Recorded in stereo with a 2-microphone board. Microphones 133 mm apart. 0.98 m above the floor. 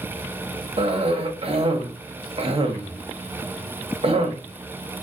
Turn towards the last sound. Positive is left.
turn(degrees=-45)  # may be behind; listen again after turning